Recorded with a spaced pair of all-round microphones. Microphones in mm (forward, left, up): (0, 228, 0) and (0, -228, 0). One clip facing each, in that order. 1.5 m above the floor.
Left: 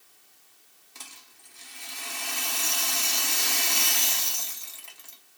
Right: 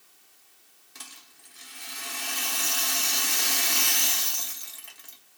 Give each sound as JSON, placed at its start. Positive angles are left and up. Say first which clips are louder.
{"t": 0.9, "sound": "a rattle", "louder": "right 1 dB", "side_deg": -35, "distance_m": 0.9}